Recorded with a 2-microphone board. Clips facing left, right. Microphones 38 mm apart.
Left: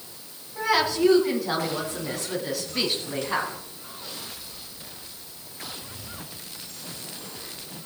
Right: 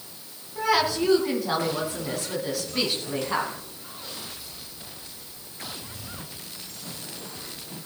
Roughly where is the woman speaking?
Centre.